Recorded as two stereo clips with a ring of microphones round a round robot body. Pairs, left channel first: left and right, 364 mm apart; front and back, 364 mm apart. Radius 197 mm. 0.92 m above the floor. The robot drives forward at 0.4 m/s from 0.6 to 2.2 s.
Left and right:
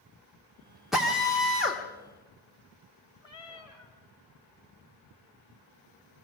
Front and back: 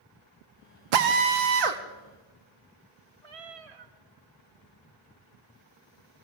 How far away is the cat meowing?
About 1.8 m.